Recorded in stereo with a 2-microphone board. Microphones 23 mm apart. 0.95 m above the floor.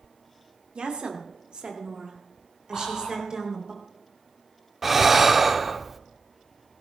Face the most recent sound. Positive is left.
turn(degrees=-10)  # may be behind; listen again after turning